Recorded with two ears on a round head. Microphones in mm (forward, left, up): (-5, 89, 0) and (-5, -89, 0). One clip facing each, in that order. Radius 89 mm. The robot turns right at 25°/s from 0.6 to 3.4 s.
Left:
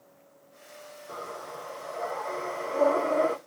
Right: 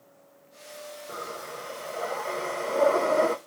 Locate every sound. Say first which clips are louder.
1.1 s breathing: left 1 dB; 155° right, 0.6 m; by 3.4 s 95° right, 0.6 m